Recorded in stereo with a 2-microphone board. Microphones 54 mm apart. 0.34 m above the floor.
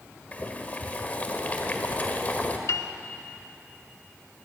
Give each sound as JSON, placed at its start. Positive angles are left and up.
{"t": 0.3, "sound": "boiling", "side_deg": 30, "distance_m": 1.5}
{"t": 2.7, "sound": "a piano", "side_deg": 65, "distance_m": 0.8}